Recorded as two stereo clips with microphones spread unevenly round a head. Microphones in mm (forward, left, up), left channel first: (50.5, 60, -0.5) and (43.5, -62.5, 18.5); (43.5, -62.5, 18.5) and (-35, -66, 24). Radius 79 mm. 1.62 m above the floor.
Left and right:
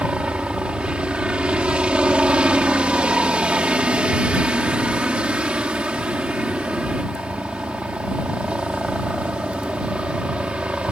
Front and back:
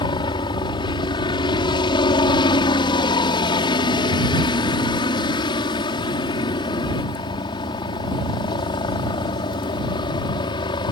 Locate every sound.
0.0 s a helicopter: 10° right